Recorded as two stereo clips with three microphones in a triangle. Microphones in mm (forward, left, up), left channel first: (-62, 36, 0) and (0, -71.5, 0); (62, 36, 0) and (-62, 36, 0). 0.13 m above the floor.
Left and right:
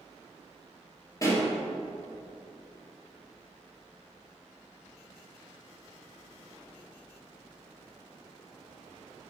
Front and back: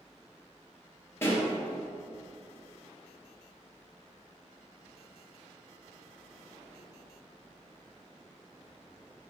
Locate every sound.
1.2 s a pop: 65° left, 3 m